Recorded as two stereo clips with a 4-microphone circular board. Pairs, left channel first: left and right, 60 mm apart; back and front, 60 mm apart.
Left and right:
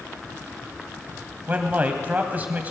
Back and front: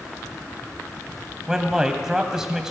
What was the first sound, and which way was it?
A man speaking, 70° right.